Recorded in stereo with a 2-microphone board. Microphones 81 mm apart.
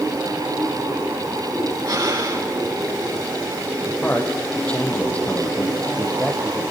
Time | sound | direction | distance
1.9 | breathing | 60° right (ahead or behind) | 8 m
3.9 | a man speaking | 15° left (ahead or behind) | 4 m